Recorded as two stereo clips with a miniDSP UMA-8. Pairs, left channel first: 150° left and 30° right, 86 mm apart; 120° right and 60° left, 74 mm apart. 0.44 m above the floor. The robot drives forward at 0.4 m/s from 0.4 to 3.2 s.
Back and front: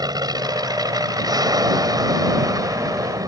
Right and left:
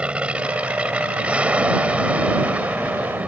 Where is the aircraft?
10° right; by 3.3 s 5° right.